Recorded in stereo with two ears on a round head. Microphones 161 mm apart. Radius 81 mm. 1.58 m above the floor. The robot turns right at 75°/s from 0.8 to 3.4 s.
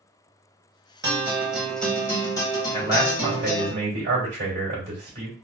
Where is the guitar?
15° right (ahead or behind), 1.4 m; by 3.7 s 20° left (ahead or behind), 1.4 m.